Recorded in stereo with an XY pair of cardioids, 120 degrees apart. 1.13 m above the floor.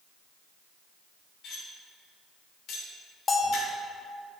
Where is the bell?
30° left, 1.0 m.